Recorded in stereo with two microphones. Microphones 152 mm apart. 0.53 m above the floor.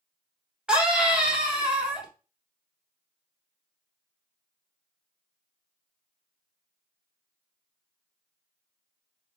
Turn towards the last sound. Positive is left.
turn(degrees=-5)  # may be behind; listen again after turning